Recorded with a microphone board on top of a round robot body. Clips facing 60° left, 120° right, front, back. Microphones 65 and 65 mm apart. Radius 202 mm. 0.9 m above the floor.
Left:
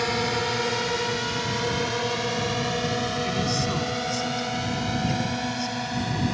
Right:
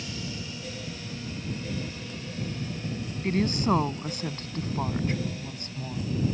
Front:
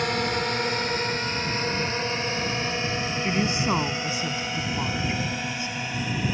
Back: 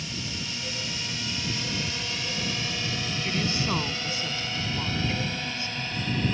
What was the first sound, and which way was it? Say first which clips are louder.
A drone: left 13 dB, front 11 dB; 35° left.